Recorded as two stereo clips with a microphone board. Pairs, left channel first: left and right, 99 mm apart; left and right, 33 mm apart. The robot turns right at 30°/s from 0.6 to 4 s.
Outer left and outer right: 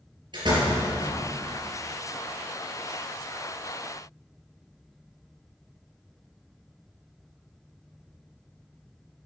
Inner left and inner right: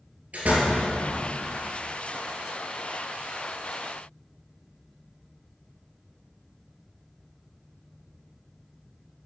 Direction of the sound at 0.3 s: 50° right (ahead or behind).